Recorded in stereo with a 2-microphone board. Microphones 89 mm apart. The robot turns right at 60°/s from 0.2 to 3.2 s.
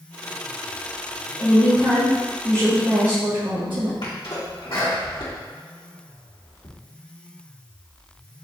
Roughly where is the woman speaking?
Behind left.